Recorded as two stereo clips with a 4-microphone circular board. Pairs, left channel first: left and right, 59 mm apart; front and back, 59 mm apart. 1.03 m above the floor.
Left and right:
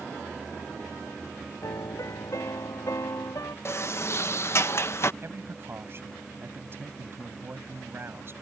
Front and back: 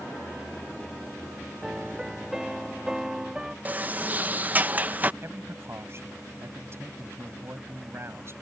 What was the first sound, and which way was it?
A piano, 100° left.